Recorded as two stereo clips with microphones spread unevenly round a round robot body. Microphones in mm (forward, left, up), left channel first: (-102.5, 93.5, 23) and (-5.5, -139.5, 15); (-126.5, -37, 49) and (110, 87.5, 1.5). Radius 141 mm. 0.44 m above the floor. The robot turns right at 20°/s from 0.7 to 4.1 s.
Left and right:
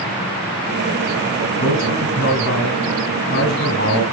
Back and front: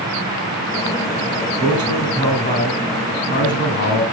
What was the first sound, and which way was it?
A man speaking, 125° left.